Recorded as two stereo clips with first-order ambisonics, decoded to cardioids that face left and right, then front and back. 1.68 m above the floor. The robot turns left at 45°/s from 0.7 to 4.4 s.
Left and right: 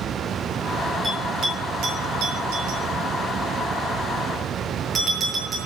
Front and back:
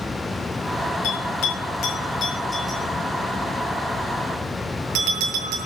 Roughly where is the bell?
Ahead.